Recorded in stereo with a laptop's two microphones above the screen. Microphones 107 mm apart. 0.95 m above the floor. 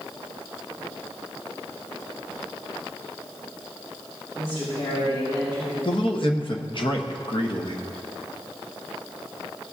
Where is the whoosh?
I don't hear a whoosh.